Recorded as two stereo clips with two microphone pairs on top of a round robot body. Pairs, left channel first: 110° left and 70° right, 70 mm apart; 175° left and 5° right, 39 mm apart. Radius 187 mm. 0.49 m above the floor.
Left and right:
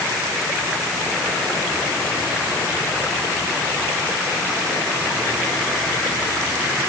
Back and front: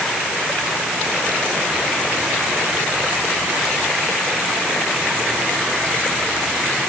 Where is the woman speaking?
No woman speaking in this recording.